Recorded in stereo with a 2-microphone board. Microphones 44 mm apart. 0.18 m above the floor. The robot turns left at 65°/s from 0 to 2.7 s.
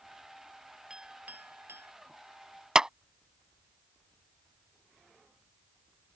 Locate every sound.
0.9 s a clink: 15° right (ahead or behind); by 1.9 s 85° right
2.8 s a clap: 15° right (ahead or behind)